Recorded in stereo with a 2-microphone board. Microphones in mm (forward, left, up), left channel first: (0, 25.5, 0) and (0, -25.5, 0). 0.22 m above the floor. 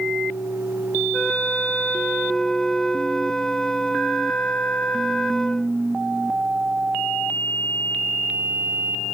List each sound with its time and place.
1.1 s a flute: 10° left (ahead or behind)